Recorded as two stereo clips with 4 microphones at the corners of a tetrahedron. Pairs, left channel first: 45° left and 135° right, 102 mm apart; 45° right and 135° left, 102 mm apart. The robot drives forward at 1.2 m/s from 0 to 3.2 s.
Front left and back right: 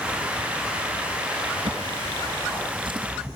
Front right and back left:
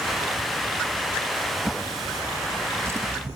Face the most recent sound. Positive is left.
turn(degrees=-165)